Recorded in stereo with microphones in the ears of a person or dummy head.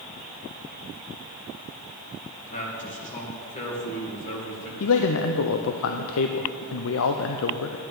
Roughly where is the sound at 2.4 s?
Left.